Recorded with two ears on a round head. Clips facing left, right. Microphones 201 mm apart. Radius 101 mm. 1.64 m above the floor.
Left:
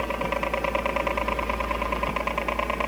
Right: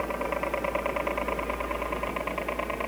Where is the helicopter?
50° left (ahead or behind); by 2.9 s 60° left (ahead or behind).